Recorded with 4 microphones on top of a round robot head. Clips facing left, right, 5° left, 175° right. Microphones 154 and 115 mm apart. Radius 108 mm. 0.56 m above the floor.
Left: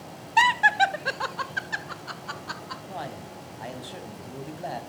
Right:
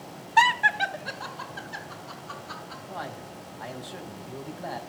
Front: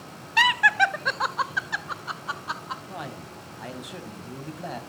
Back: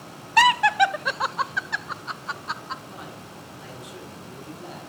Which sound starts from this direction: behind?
Laughter, at 0.4 s.